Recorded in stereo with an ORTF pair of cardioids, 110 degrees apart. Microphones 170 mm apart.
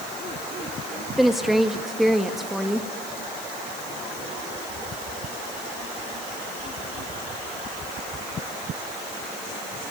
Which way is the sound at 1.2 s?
Straight ahead.